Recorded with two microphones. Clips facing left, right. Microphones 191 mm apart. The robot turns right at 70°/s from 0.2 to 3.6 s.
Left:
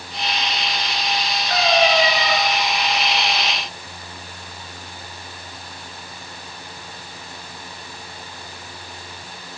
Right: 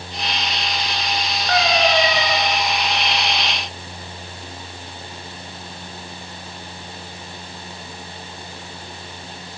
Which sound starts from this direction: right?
A cat meowing, at 1.5 s.